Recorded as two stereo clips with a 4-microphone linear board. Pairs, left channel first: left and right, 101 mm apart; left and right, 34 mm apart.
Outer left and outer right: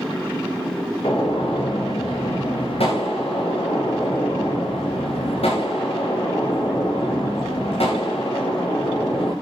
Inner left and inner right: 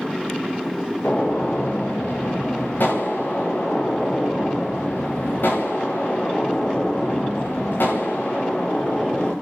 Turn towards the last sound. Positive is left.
turn(degrees=70)  # may be behind; listen again after turning